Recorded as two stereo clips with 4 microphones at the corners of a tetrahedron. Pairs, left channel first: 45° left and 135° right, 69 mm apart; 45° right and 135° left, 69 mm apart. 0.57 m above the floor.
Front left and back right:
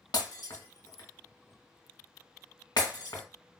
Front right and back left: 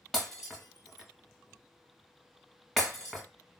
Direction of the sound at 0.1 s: 45° left.